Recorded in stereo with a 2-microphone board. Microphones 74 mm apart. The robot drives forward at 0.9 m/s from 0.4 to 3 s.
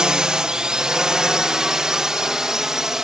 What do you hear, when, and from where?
0.0 s a drone: 10° right (ahead or behind); by 3.0 s 5° right (ahead or behind)